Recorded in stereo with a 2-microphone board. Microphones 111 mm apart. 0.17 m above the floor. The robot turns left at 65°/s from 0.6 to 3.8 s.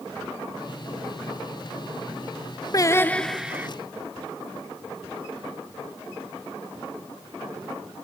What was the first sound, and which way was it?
Singing, 40° left.